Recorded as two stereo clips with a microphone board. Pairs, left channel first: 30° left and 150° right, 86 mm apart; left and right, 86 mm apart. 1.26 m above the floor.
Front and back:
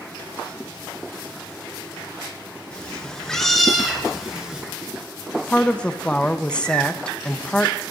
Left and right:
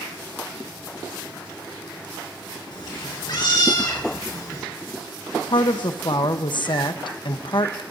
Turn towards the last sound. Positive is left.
turn(degrees=105)